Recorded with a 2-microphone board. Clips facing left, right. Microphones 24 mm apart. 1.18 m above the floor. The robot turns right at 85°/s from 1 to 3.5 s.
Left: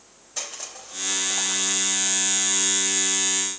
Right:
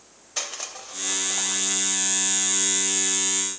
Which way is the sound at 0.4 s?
30° right (ahead or behind).